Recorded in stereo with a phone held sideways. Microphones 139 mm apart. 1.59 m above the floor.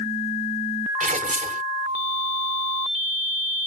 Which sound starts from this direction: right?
Tearing paper, at 1.0 s.